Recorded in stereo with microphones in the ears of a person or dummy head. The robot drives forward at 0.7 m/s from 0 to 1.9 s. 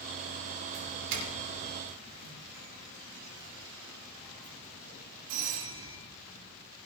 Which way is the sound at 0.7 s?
50° right (ahead or behind).